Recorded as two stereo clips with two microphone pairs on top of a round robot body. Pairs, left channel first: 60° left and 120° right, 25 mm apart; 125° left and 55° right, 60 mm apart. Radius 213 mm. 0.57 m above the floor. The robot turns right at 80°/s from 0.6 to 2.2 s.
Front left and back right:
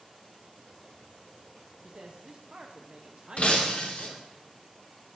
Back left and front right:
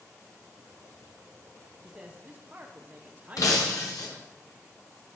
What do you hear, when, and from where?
1.8 s a man speaking: 135° right, 0.8 m; by 4.3 s 105° right, 0.8 m
3.4 s breaking glass: 100° left, 1.1 m